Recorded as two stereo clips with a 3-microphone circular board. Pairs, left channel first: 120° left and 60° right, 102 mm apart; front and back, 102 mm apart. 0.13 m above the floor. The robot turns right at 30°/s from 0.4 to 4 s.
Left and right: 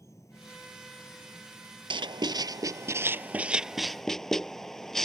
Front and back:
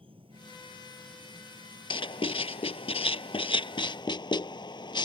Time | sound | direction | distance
0.0 | an insect | 175° left | ?
1.9 | writing | 30° right | ?